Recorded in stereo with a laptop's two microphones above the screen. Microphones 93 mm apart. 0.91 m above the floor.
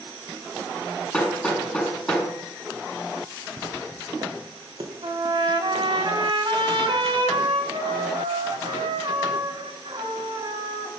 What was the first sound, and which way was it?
Hammering, 10° left (ahead or behind).